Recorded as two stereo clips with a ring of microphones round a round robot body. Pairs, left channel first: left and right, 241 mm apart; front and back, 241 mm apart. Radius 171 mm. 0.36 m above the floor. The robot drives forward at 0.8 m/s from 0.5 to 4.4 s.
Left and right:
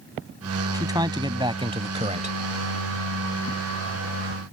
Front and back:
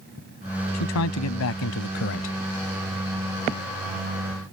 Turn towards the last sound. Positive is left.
turn(degrees=-140)